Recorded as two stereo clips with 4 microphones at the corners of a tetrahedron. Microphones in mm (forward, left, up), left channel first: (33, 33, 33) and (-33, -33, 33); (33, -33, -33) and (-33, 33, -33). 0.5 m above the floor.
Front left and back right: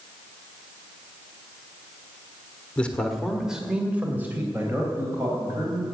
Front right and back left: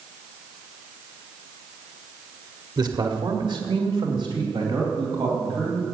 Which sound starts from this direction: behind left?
A man speaking, at 2.8 s.